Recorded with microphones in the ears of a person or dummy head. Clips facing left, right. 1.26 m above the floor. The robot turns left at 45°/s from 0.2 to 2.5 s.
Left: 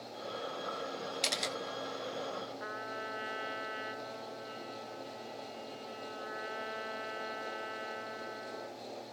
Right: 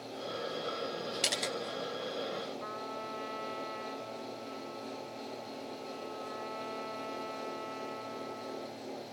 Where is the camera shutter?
10° right (ahead or behind), 0.7 m; by 1.5 s 5° left (ahead or behind), 0.7 m.